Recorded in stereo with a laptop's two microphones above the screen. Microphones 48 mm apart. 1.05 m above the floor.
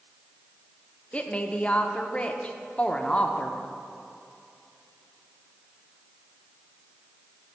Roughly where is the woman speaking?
Left.